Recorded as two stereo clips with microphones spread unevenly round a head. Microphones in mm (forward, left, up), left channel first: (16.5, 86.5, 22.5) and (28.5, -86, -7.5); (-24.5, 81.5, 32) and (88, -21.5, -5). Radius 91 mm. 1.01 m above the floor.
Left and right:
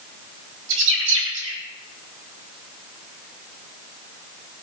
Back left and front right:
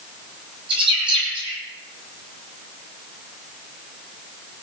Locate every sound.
0.7 s a bird: 110° right, 4 m